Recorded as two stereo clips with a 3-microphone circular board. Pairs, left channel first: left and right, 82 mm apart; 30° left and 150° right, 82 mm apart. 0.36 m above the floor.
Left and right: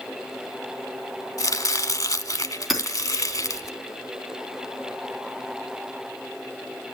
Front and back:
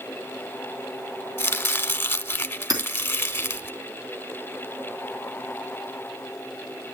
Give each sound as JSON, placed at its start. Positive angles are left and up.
{"t": 1.4, "sound": "chopping", "azimuth_deg": 80, "distance_m": 0.9}
{"t": 2.7, "sound": "hammering", "azimuth_deg": 180, "distance_m": 3.0}